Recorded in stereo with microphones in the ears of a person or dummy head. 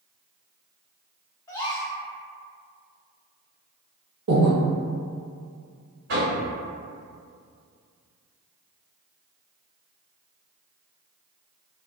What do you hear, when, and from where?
1.5 s a gasp: 10° left (ahead or behind), 0.6 m
4.3 s breathing: 80° right, 0.8 m
6.1 s knocking: 65° right (ahead or behind), 1.8 m